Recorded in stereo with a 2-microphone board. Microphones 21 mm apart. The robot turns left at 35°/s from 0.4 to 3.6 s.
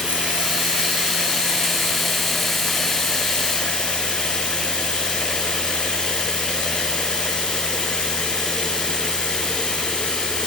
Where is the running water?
115° right, 4 m; by 10.5 s 135° left, 4 m.